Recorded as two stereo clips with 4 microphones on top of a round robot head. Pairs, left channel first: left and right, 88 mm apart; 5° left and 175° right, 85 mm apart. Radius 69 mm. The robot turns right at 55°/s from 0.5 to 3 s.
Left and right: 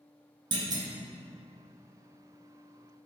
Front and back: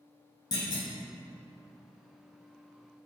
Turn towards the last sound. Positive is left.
turn(degrees=85)